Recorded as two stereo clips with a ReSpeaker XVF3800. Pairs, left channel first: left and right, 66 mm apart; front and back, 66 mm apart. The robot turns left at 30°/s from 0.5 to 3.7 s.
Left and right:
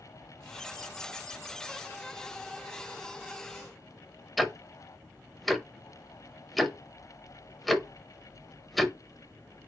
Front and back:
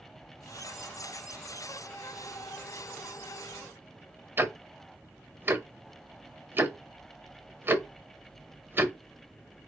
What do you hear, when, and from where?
4.4 s ticking: straight behind, 0.7 m